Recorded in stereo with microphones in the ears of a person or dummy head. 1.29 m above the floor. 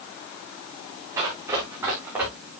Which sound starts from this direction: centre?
Running footsteps, at 1.2 s.